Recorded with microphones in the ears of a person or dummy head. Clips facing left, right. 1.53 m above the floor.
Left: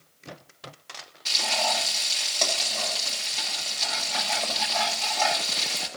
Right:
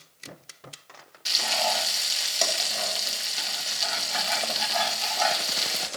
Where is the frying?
15° right (ahead or behind), 1.8 m.